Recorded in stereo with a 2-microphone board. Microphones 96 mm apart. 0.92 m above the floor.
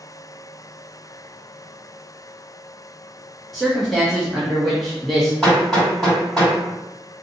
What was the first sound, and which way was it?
A man speaking, centre (ahead or behind).